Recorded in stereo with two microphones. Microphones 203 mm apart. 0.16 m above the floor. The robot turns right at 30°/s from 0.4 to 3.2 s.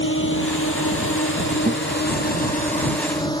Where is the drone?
70° left (ahead or behind); by 3.4 s 20° left (ahead or behind).